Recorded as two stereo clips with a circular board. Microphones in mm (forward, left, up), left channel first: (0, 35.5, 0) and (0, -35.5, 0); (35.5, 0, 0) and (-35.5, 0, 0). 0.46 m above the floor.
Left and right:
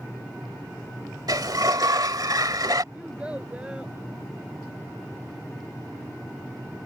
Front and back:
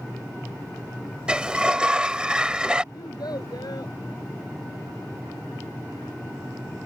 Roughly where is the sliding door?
Right.